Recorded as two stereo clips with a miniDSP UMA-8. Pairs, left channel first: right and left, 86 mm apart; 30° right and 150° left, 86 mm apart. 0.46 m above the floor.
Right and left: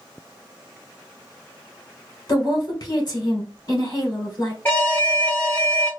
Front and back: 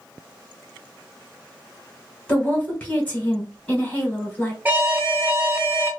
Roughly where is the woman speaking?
Right.